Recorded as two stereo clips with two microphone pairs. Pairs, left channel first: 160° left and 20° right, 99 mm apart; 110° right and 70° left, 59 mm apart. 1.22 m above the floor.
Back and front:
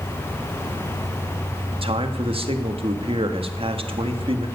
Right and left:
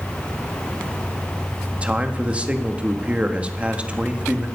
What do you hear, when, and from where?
1.7 s a man speaking: straight ahead, 1.7 m